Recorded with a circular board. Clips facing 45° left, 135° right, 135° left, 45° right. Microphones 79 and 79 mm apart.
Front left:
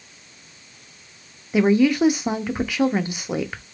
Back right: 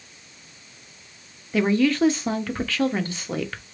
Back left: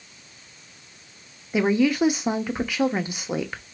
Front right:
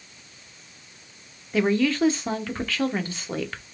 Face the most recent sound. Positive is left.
turn(degrees=95)